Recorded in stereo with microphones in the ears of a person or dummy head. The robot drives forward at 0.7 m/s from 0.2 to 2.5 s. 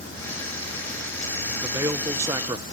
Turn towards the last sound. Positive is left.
turn(degrees=-25)  # may be behind; listen again after turning